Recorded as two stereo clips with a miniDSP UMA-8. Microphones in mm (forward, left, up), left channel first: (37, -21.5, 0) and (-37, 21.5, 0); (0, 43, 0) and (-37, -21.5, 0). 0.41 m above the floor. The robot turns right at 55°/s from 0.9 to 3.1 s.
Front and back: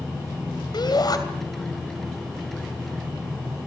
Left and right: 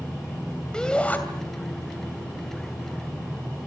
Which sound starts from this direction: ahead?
A shout, at 0.7 s.